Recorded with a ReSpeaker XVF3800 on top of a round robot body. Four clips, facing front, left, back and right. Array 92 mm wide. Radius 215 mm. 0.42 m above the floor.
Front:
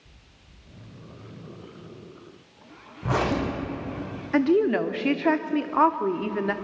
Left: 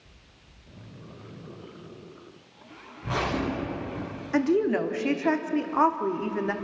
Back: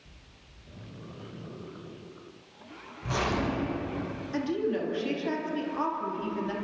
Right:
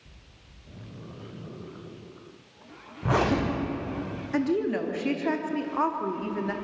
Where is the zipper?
55° right, 5 m.